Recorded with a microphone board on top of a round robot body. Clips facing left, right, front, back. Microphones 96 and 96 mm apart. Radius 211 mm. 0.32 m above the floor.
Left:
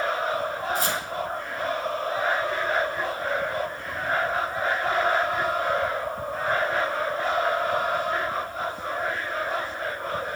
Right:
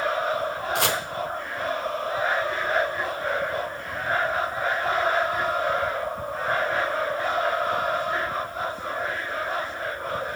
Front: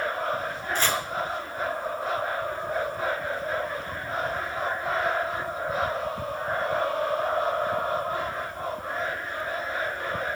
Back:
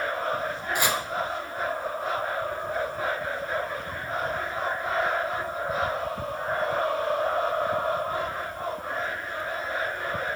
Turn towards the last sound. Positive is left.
turn(degrees=-105)